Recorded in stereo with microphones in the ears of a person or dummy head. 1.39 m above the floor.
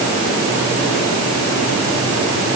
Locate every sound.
Only background noise.